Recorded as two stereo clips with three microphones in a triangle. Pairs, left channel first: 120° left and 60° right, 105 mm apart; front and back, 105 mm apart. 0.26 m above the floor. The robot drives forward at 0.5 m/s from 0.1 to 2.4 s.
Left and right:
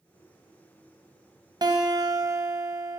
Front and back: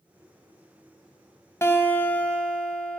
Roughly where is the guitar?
Ahead right.